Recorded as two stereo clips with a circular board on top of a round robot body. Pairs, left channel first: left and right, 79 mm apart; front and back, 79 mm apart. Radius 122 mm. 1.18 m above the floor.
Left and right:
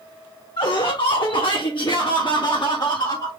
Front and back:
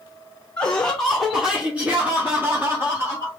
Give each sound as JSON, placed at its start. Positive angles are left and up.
{"t": 0.6, "sound": "laughter", "azimuth_deg": 75, "distance_m": 1.1}